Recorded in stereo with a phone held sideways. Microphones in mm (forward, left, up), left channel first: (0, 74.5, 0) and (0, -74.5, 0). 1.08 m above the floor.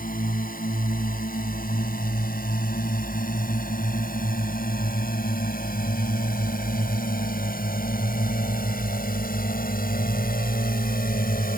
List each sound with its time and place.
0.0 s a drone: 70° left (ahead or behind); by 11.6 s 80° left